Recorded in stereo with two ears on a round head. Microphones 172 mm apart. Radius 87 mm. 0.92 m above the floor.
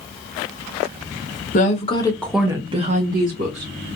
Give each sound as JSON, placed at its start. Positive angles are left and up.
{"t": 1.5, "sound": "a woman speaking", "side_deg": 40, "distance_m": 1.0}